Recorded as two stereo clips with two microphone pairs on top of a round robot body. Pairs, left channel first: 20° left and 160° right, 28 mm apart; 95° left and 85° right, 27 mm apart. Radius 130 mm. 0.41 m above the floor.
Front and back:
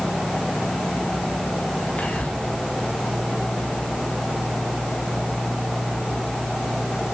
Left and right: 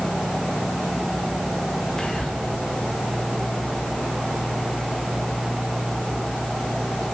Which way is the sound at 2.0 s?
35° left.